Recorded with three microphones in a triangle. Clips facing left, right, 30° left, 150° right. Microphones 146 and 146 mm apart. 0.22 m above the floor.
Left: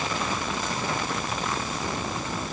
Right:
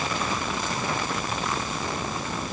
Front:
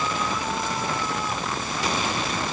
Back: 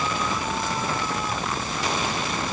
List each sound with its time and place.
Only background noise.